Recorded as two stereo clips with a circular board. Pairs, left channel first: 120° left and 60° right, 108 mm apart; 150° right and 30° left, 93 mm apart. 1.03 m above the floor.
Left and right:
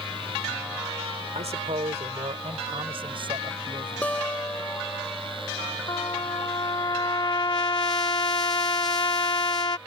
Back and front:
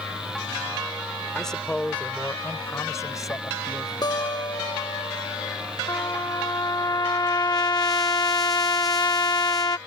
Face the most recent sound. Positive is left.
turn(degrees=165)